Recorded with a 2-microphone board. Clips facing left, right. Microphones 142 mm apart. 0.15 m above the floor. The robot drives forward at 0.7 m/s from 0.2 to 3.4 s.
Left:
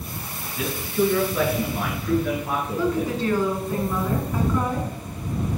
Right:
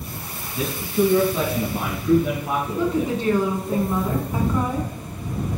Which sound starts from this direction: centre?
A woman speaking, at 2.8 s.